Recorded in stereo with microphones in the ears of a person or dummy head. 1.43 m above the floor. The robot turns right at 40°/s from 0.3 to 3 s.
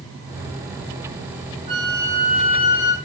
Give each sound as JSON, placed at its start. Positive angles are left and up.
{"t": 1.7, "sound": "a flute", "azimuth_deg": -30, "distance_m": 3.0}